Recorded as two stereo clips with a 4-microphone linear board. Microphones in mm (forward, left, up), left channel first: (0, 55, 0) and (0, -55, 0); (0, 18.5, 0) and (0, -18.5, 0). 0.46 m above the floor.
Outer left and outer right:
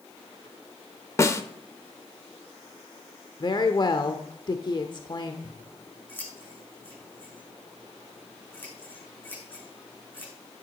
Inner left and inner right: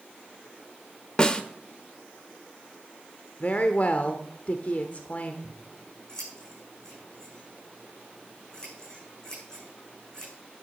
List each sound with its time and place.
1.2 s a snare drum: 25° left (ahead or behind), 1.1 m
3.4 s a woman speaking: 40° left (ahead or behind), 1.0 m
5.4 s scissors: 15° left (ahead or behind), 8.5 m